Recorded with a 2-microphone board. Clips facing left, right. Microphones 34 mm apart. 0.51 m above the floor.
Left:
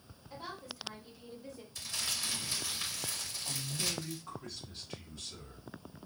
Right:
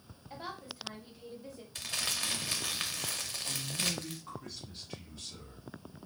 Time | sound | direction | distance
0.3 | a woman speaking | 35° right (ahead or behind) | 1.3 m
1.8 | crumpling | 80° right | 0.7 m
3.5 | a man speaking | 10° right (ahead or behind) | 1.4 m